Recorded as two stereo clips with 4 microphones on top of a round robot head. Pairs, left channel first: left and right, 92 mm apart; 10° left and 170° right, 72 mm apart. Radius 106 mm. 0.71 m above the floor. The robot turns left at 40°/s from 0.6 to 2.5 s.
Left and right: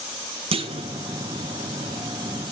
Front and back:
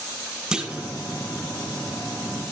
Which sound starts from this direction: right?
A clunk, at 0.5 s.